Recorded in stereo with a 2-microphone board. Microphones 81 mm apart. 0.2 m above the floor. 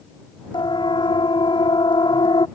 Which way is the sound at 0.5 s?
70° left (ahead or behind).